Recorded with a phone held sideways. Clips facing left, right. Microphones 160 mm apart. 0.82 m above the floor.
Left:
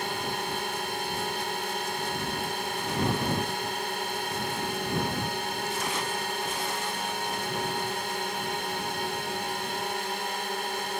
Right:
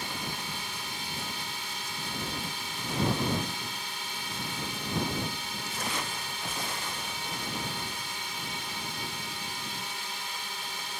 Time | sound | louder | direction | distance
0.0 | a drone | left 6 dB | 60° left (ahead or behind) | ?